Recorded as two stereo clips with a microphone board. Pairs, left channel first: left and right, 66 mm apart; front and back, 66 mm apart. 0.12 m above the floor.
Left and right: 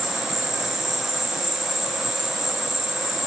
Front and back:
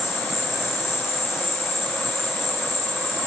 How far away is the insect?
About 1.0 m.